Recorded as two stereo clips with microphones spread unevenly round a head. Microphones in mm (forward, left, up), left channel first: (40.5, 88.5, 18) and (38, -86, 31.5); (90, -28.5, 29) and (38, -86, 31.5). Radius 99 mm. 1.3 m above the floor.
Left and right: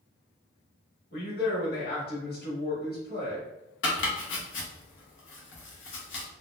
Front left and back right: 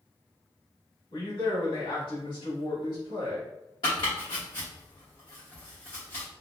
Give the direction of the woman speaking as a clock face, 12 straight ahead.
10 o'clock.